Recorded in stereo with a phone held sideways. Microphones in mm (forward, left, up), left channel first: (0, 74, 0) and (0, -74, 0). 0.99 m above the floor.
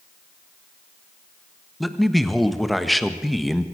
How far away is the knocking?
No knocking in this recording.